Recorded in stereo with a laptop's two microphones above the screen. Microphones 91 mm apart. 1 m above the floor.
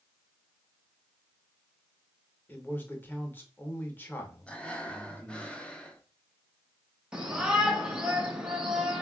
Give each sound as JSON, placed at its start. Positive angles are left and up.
{"t": 2.5, "sound": "a man speaking", "side_deg": 20, "distance_m": 0.6}
{"t": 4.5, "sound": "breathing", "side_deg": 10, "distance_m": 0.5}
{"t": 7.1, "sound": "a shout", "side_deg": -10, "distance_m": 1.1}